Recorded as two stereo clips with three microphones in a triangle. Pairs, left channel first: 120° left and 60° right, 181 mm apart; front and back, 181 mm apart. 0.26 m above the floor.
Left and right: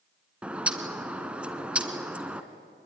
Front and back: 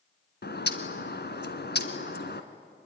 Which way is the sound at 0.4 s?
25° left.